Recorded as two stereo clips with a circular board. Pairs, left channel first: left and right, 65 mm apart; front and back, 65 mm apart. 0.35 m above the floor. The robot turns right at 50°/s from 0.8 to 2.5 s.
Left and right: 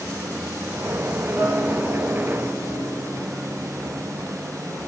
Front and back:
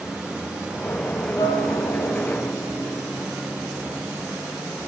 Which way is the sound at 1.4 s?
25° right.